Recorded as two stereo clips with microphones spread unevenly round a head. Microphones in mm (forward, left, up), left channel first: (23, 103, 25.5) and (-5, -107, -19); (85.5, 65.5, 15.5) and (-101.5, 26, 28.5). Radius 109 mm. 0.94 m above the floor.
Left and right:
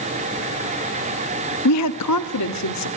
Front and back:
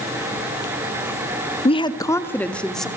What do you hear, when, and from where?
1.6 s a woman speaking: 70° left, 1.4 m; by 2.9 s 100° left, 2.5 m